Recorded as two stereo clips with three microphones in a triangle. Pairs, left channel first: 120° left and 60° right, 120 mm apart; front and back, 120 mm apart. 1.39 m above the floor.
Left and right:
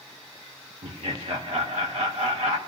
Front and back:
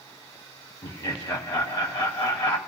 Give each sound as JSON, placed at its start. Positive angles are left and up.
{"t": 0.8, "sound": "laughter", "azimuth_deg": -45, "distance_m": 0.9}